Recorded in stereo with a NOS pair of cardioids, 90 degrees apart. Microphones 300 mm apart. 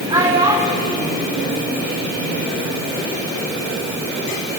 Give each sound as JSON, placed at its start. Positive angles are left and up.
{"t": 0.1, "sound": "a child speaking", "azimuth_deg": -15, "distance_m": 2.0}